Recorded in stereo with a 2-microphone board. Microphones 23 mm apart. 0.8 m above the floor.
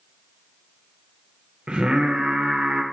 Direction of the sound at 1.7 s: 45° right (ahead or behind).